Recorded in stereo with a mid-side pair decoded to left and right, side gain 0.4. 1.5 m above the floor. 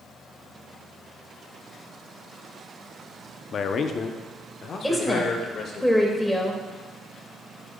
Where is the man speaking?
60° left, 0.8 m.